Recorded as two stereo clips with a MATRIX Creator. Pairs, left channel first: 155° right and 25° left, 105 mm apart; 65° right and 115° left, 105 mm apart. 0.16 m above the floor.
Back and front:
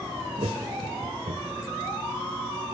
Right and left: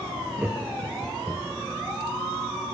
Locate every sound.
0.4 s laughter: 40° left, 3 m; by 1.7 s 30° left, 4.5 m